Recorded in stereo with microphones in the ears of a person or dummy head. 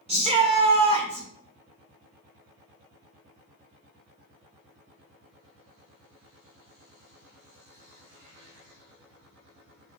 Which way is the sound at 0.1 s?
30° right (ahead or behind).